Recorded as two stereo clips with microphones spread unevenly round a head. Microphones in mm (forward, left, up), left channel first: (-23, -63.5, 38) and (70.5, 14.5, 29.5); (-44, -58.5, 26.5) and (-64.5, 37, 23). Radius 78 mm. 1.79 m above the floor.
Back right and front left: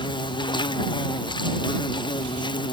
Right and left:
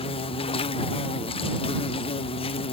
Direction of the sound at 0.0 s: 90° right.